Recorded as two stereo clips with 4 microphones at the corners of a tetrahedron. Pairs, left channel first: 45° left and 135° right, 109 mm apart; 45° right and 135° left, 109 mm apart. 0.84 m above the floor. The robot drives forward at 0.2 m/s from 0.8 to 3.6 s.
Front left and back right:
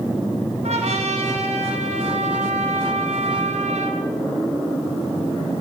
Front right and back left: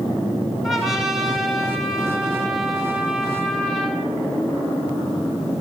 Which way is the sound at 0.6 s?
135° right.